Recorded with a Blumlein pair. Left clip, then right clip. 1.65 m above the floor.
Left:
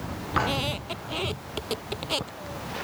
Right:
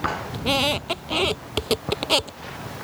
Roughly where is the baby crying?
I don't hear a baby crying.